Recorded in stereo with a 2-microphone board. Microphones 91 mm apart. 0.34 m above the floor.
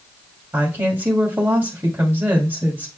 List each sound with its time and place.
0.5 s a woman speaking: 25° right (ahead or behind), 2 m